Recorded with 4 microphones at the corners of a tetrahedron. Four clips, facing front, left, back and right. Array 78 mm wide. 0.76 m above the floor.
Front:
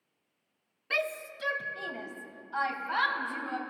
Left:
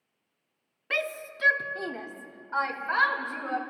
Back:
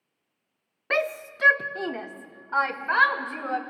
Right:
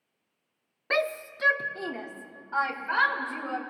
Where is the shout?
150° right, 0.8 m; by 3.6 s 170° left, 3.5 m.